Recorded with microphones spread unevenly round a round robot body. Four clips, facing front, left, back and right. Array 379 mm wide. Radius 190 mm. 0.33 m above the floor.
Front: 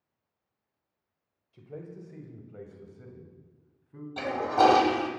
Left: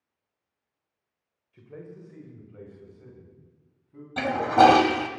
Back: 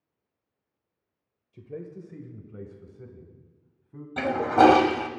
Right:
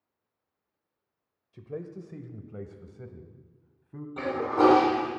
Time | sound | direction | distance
1.5 | a man speaking | 125° right | 1.2 m
4.2 | a toilet flushing | 125° left | 1.0 m